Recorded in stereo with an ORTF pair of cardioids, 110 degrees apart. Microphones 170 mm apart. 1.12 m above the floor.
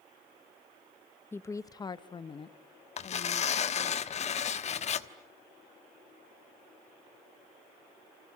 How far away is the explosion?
No explosion in this recording.